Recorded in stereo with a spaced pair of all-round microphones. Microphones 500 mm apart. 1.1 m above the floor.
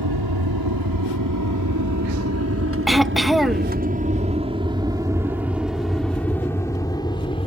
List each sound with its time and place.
0.0 s an aircraft: 50° right (ahead or behind); by 7.5 s 10° left (ahead or behind)
2.9 s throat clearing: centre (ahead or behind)